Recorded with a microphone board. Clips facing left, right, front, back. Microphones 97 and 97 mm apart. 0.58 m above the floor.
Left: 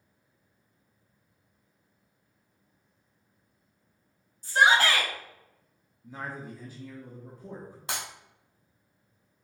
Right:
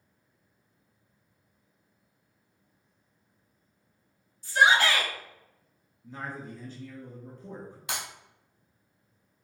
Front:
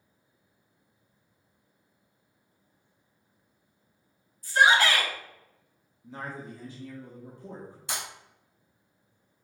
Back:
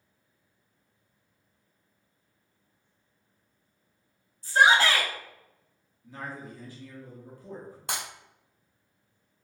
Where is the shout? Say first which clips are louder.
Even, back 1 dB; 130° left, 1.2 m.